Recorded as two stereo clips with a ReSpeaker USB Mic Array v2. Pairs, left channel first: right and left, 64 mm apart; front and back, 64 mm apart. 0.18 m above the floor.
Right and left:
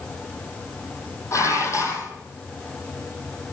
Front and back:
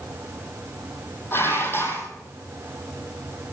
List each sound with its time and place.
1.3 s dishes clattering: 50° right, 3.5 m